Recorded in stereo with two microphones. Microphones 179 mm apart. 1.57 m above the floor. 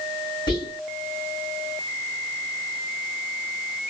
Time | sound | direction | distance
0.5 | whispering | 25° left (ahead or behind) | 2.5 m